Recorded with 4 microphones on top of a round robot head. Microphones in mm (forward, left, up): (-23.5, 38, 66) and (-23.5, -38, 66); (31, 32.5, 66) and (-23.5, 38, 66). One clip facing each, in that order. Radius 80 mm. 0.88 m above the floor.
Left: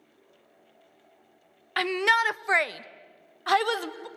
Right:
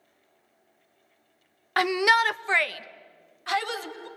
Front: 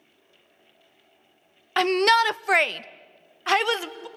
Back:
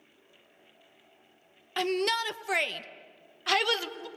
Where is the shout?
25° right, 0.7 m; by 4.1 s 65° left, 1.3 m.